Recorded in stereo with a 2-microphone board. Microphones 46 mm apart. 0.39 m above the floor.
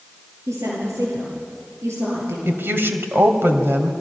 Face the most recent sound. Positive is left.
turn(degrees=-55)  # may be behind; listen again after turning